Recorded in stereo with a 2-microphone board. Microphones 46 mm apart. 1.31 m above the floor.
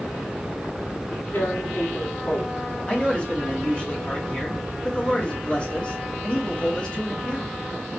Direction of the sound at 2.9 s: 20° left (ahead or behind).